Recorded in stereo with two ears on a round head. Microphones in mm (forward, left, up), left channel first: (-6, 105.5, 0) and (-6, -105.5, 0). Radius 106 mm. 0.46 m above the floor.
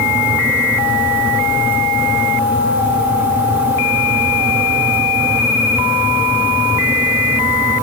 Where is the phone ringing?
No phone ringing in this recording.